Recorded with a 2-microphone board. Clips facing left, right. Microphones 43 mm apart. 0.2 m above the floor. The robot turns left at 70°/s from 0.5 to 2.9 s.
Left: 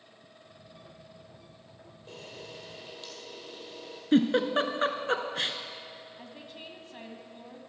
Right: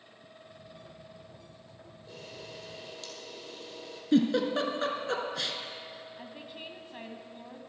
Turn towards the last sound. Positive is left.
turn(degrees=-15)  # may be behind; listen again after turning